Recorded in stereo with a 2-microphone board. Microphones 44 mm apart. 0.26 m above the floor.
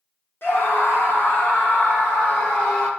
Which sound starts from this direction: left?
A scream, at 0.4 s.